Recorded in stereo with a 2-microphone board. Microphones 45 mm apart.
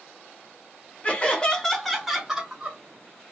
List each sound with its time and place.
1.0 s laughter: 30° left (ahead or behind), 0.9 m; by 2.8 s 20° right (ahead or behind), 1.2 m